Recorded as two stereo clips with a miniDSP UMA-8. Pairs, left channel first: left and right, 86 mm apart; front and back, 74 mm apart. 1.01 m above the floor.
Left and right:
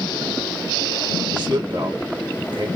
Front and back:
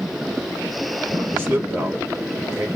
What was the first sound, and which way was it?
A man speaking, 120° right.